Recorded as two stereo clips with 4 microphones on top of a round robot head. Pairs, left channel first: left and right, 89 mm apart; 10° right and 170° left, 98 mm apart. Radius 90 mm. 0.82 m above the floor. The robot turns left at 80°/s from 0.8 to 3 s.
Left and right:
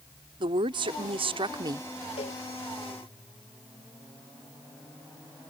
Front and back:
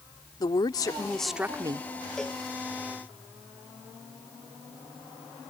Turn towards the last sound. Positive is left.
turn(degrees=10)